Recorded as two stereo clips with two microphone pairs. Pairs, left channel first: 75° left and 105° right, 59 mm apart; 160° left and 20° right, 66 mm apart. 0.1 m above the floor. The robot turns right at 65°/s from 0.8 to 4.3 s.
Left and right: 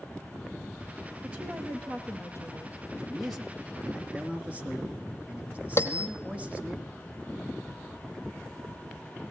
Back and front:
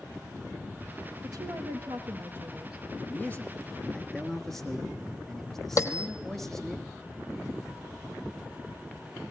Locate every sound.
1.2 s a woman speaking: 40° right, 3 m; by 2.8 s 60° left, 3 m
2.9 s a man speaking: 150° left, 1.4 m; by 6.8 s 120° right, 1.4 m
5.8 s a bell: 120° left, 1.1 m